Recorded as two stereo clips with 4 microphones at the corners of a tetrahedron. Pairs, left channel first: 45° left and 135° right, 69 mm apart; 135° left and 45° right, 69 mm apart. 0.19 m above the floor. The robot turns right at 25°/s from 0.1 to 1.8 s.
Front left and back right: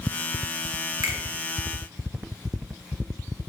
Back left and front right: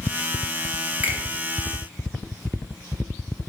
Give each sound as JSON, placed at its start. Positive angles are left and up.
{"t": 1.0, "sound": "a finger snap", "azimuth_deg": -110, "distance_m": 2.5}